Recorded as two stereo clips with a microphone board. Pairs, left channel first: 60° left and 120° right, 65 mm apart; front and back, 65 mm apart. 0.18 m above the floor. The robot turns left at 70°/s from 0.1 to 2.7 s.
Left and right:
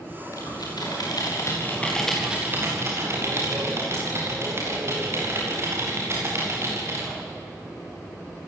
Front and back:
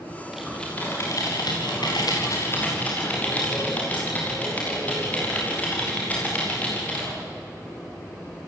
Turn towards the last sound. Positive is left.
turn(degrees=-70)